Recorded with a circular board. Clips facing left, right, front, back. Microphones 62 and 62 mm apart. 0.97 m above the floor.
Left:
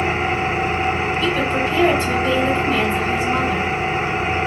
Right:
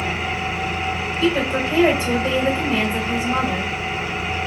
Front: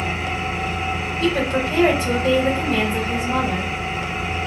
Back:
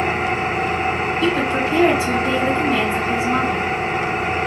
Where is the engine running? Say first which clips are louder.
Left 5 dB, back 5 dB; 145° left, 0.7 m.